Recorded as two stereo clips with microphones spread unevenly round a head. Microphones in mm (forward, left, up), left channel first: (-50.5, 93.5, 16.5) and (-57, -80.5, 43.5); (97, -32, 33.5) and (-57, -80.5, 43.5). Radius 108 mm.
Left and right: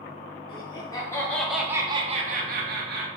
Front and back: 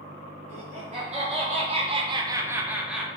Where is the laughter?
145° left, 0.9 m; by 3.1 s 75° right, 0.7 m.